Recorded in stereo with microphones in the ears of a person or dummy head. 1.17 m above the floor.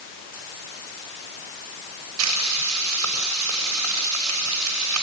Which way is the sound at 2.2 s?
75° right (ahead or behind).